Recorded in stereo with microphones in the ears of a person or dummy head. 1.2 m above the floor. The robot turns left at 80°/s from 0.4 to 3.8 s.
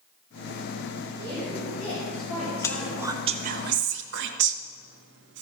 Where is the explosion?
I don't hear an explosion.